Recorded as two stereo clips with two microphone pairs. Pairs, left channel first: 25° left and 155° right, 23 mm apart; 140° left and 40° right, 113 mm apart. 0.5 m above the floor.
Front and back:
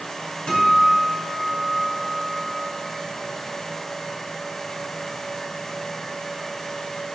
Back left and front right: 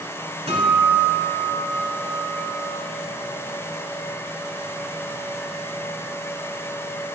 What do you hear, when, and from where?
0.5 s a guitar: 20° right, 4 m